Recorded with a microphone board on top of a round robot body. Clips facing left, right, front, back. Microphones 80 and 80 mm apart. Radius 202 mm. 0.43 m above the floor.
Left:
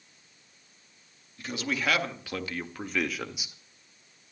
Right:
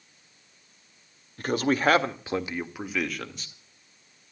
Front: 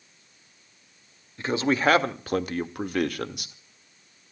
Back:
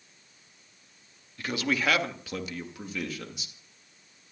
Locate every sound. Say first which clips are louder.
1.4 s a man speaking: right 8 dB, front 6 dB; 60° right, 2 m; by 3.5 s 15° left, 2.0 m